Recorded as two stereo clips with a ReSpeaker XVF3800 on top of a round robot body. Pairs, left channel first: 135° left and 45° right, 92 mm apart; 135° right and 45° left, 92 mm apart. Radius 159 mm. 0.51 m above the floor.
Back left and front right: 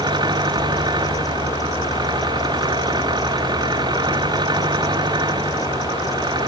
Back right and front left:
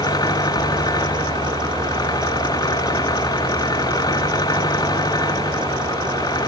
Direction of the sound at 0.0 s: 85° right.